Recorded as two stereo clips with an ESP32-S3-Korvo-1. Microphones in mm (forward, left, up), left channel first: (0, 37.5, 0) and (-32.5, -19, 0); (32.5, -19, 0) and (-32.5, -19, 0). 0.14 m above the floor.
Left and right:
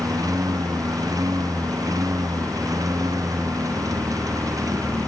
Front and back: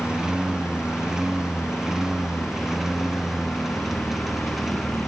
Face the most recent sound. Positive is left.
turn(degrees=-90)